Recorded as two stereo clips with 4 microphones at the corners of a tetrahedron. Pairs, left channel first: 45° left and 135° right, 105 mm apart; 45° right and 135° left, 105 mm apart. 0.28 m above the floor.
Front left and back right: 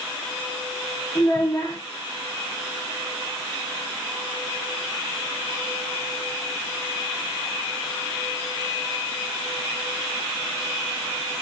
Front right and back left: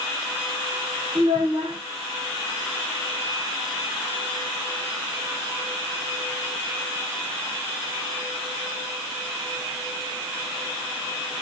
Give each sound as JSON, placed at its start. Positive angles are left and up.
{"t": 1.1, "sound": "a child speaking", "azimuth_deg": 100, "distance_m": 1.3}